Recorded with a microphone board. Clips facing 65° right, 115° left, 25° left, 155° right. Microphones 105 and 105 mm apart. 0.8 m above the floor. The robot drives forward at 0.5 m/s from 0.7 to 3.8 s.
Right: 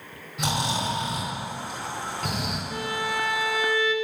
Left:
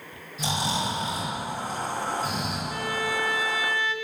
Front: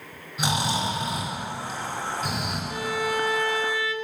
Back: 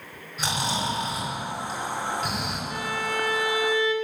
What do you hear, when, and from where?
0.4 s snoring: 50° right, 2.5 m; by 2.6 s 70° right, 2.5 m
2.7 s a violin: 25° right, 0.7 m; by 3.9 s 135° right, 0.7 m